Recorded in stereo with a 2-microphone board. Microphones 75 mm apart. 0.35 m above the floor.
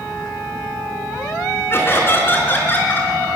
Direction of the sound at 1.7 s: 35° left (ahead or behind).